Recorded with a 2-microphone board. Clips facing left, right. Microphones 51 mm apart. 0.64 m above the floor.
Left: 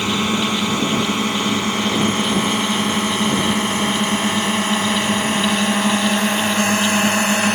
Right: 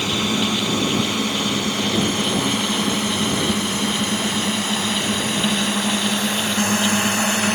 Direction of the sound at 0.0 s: 25° left (ahead or behind).